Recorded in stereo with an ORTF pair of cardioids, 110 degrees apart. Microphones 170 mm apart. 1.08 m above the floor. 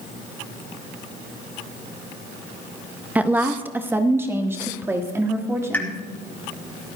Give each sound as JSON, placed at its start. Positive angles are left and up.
{"t": 3.1, "sound": "a woman speaking", "azimuth_deg": -10, "distance_m": 0.8}
{"t": 5.7, "sound": "a pop", "azimuth_deg": 10, "distance_m": 3.0}